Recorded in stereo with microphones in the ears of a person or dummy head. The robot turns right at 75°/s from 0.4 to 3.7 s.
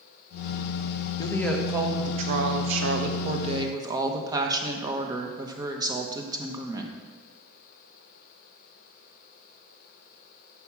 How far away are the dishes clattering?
No dishes clattering in this recording.